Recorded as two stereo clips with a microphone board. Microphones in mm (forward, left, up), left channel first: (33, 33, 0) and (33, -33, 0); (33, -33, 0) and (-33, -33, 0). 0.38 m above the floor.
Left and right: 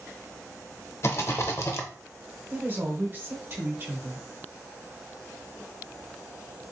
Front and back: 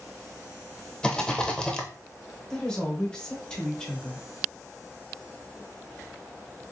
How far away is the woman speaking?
About 1.0 m.